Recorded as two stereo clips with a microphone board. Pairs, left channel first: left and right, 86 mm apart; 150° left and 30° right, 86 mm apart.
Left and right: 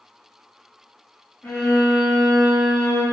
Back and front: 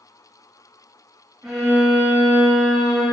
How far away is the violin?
About 1.2 m.